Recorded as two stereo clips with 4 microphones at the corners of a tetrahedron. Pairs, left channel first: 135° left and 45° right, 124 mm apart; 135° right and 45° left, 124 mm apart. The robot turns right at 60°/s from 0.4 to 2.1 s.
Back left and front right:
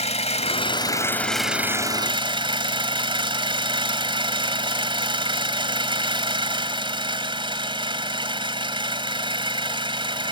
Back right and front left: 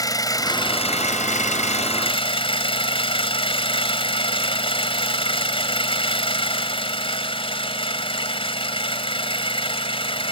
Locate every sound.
0.0 s an engine running: 165° left; by 10.3 s 95° right